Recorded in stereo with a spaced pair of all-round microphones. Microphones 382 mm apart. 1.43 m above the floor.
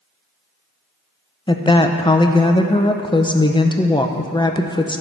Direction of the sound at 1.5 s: 10° left (ahead or behind).